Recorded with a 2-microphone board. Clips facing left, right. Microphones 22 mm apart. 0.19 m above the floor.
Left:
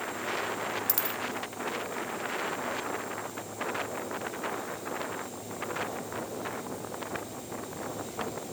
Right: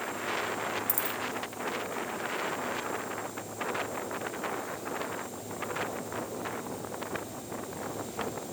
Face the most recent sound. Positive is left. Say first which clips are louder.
# even
turn(degrees=55)  # may be behind; listen again after turning